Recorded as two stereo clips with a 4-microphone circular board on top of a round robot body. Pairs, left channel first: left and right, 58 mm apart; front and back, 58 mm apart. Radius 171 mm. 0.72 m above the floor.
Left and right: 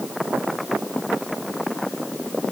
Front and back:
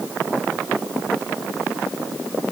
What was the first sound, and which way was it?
Only background noise.